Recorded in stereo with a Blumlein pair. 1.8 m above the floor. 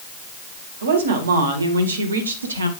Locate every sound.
0.8 s a woman speaking: 65° right, 2.5 m; by 2.7 s 75° right, 1.6 m